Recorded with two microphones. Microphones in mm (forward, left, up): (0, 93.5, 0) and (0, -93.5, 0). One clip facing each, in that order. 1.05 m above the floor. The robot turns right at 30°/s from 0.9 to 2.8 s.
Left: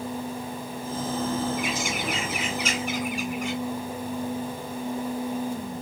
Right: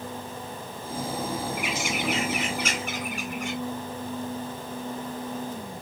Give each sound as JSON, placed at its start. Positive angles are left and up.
{"t": 1.6, "sound": "a bird", "azimuth_deg": -110, "distance_m": 3.0}